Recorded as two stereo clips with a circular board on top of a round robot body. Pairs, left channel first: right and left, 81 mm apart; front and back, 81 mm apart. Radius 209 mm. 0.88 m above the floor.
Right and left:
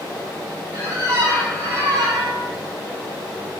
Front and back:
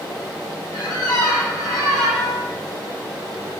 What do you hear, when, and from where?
0.7 s a squeak: 35° left, 0.8 m